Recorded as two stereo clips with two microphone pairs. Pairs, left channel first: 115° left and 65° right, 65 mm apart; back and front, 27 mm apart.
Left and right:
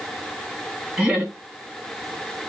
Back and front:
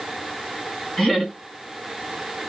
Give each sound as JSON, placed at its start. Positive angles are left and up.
{"t": 1.0, "sound": "laughter", "azimuth_deg": -115, "distance_m": 2.0}